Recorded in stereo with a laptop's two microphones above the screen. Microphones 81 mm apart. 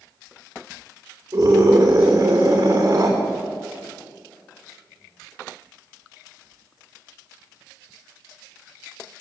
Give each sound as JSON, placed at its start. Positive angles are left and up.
{"t": 1.3, "sound": "a scream", "side_deg": -35, "distance_m": 3.5}